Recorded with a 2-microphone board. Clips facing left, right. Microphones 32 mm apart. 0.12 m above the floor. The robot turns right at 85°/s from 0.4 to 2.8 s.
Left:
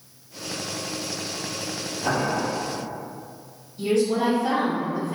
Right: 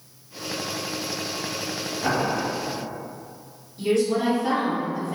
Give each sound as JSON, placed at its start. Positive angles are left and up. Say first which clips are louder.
{"t": 2.0, "sound": "boiling", "louder": "even", "azimuth_deg": -125, "distance_m": 1.0}
{"t": 3.8, "sound": "a woman speaking", "louder": "even", "side_deg": -5, "distance_m": 2.0}